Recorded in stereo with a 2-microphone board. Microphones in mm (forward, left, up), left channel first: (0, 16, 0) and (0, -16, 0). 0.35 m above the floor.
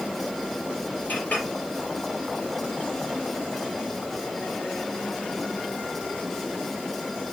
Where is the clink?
75° left (ahead or behind), 3.5 m.